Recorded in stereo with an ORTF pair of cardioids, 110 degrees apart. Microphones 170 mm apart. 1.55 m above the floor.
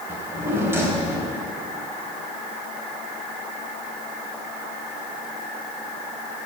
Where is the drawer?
15° right, 3.5 m.